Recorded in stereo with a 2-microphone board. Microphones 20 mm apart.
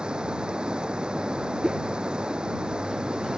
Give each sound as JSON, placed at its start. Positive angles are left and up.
{"t": 0.0, "sound": "running water", "side_deg": -45}
{"t": 1.6, "sound": "a whoosh", "side_deg": -35}